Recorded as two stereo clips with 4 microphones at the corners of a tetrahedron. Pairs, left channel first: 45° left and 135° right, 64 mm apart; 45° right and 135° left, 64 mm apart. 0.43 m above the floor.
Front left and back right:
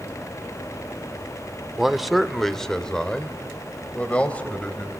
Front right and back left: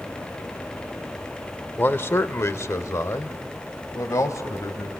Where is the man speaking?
55° right, 0.9 m; by 4.9 s 20° right, 2 m.